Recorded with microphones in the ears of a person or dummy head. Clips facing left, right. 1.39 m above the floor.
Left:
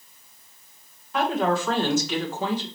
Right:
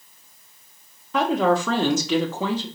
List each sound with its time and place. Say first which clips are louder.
1.1 s a woman speaking: right 3 dB; 60° right (ahead or behind), 1.1 m